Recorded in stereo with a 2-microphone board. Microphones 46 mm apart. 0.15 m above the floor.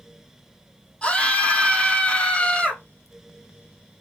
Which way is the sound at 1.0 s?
25° left (ahead or behind).